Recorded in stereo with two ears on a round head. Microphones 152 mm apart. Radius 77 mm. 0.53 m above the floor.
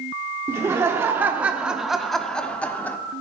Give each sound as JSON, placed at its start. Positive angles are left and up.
{"t": 0.5, "sound": "laughter", "side_deg": -15, "distance_m": 1.0}